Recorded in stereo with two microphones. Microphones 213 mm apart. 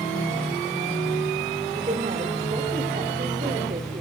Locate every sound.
1.7 s a woman speaking: 35° right (ahead or behind), 2.5 m